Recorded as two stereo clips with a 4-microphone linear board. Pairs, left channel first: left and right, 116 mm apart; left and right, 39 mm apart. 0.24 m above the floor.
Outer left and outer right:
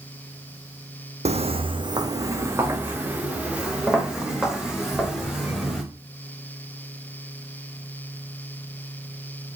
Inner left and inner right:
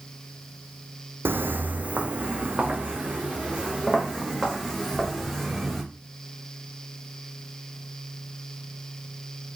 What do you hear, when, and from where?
1.2 s footsteps: 70° right (ahead or behind), 0.8 m; by 5.8 s centre (ahead or behind), 4.5 m